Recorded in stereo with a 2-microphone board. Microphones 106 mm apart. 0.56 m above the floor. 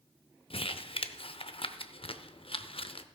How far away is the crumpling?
About 0.6 m.